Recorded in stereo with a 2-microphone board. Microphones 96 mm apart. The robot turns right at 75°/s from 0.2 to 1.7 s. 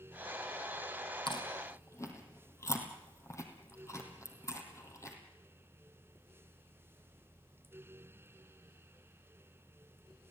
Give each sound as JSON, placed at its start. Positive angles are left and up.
{"t": 1.3, "sound": "chewing", "side_deg": 60, "distance_m": 4.0}